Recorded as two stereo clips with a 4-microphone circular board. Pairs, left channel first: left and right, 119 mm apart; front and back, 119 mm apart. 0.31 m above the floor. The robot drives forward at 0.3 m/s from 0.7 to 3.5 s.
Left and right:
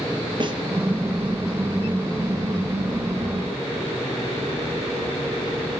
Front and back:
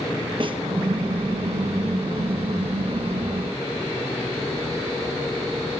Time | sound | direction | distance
0.4 | a snare drum | 135° right | 4 m